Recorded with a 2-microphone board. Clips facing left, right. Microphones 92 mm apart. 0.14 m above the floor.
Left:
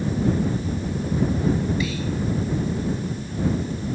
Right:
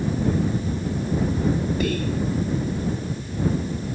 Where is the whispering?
55° right (ahead or behind).